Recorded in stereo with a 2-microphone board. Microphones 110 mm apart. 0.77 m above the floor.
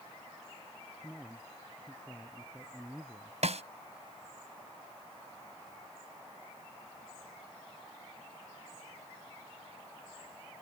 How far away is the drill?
No drill in this recording.